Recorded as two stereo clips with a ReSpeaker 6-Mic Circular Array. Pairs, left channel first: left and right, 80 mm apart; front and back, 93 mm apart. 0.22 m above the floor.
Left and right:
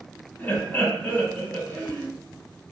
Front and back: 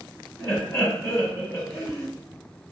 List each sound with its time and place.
0.4 s laughter: 40° left, 1.8 m